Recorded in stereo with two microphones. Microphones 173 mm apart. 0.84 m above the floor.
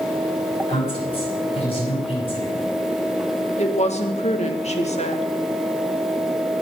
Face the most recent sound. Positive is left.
turn(degrees=40)  # may be behind; listen again after turning